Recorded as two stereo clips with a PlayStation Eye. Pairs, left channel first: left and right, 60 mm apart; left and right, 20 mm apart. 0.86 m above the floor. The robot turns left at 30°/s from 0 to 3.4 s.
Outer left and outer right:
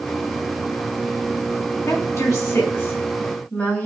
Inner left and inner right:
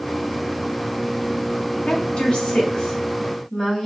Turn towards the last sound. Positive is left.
turn(degrees=35)